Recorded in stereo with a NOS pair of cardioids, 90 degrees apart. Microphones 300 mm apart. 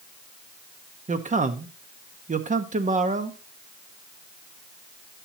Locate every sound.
1.1 s a man speaking: 25° right, 1.3 m